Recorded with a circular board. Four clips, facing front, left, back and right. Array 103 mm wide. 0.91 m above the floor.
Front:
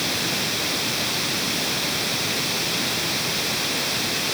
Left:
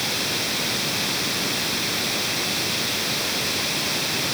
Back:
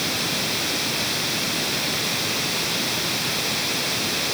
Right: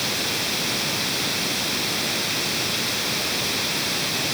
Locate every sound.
Only background noise.